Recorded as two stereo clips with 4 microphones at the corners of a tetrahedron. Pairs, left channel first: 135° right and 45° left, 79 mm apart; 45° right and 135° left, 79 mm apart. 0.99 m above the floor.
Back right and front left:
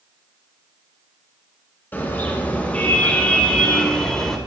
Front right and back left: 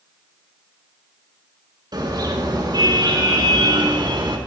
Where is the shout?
I don't hear a shout.